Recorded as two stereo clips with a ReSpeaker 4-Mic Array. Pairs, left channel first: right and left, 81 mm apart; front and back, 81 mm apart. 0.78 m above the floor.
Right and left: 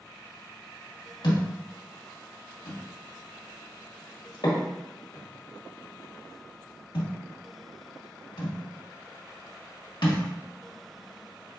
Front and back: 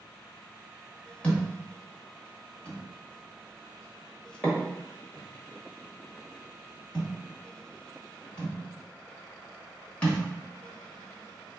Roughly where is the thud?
Right.